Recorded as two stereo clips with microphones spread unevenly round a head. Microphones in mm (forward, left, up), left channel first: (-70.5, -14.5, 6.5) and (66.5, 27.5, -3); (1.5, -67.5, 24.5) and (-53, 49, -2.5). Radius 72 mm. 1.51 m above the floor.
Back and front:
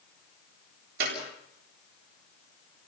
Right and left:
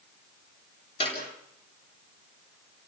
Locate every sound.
1.0 s a clap: 10° right, 8 m